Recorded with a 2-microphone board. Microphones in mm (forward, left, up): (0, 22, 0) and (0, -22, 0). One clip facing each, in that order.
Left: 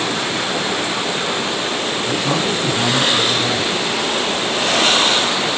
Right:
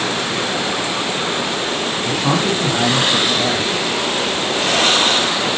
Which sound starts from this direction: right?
A man speaking, at 2.0 s.